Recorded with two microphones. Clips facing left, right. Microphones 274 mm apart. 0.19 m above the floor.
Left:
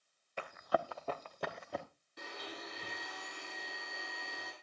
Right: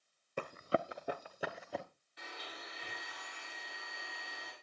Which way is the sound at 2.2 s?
50° left (ahead or behind).